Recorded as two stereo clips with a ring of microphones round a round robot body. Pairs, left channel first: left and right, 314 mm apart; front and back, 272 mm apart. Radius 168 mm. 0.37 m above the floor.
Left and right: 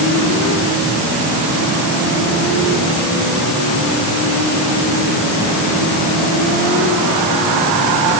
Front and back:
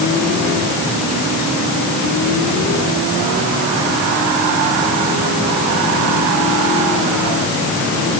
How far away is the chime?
No chime in this recording.